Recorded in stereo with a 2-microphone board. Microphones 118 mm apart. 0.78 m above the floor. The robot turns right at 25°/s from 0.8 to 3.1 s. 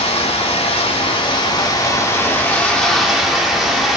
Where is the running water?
125° left, 1.0 m; by 4.0 s straight behind, 1.0 m.